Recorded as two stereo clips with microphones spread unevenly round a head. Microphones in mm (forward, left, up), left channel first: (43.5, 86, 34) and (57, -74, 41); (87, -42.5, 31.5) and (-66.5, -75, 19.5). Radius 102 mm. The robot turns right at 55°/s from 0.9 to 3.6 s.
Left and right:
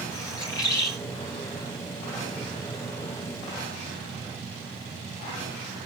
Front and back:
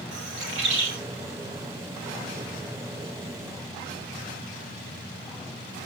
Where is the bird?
170° left, 2.0 m.